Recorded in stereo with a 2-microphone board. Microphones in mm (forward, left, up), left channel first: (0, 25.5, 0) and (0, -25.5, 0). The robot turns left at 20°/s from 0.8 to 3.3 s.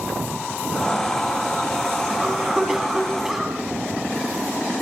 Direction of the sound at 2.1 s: 15° right (ahead or behind).